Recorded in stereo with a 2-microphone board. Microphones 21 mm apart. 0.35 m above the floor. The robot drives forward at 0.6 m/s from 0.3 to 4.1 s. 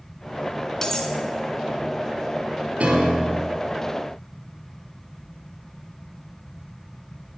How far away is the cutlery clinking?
About 1.9 m.